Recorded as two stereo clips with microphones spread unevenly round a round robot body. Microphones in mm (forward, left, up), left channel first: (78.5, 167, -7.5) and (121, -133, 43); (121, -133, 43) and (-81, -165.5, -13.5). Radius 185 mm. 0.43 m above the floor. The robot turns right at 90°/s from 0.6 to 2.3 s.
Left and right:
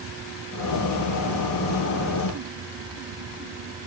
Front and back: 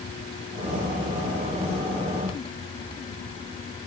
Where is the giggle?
I don't hear a giggle.